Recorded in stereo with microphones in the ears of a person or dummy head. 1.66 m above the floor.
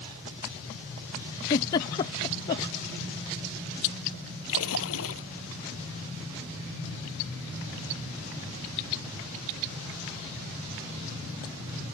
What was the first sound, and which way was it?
A giggle, 20° left (ahead or behind).